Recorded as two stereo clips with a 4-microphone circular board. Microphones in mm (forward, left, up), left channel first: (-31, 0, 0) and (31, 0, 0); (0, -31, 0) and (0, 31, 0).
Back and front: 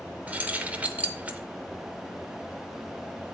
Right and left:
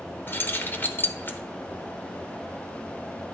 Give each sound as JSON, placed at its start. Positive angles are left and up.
{"t": 0.3, "sound": "keys jangling", "azimuth_deg": -55, "distance_m": 0.7}